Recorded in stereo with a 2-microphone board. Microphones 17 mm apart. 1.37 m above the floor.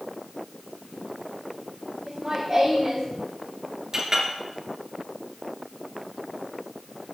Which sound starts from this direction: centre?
Laughter, at 2.1 s.